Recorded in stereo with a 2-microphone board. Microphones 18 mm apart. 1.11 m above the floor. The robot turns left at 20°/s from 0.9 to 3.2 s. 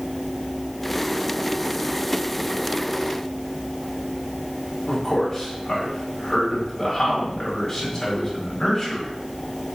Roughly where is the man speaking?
Centre.